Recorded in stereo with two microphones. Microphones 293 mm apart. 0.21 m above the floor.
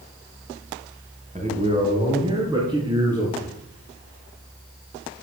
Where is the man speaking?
25° right (ahead or behind), 2.5 m; by 3.5 s 10° right (ahead or behind), 5 m.